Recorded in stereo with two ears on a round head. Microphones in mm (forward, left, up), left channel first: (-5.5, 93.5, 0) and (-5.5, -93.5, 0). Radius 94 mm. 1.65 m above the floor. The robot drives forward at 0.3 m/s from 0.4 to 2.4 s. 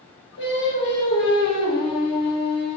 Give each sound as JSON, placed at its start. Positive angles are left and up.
{"t": 0.4, "sound": "singing", "side_deg": 60, "distance_m": 1.3}